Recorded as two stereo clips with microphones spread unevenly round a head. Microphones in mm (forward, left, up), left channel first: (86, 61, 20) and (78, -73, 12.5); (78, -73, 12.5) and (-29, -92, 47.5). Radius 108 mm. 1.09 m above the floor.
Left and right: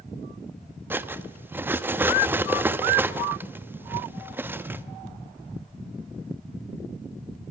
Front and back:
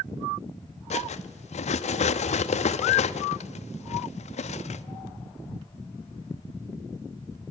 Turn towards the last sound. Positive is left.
turn(degrees=-15)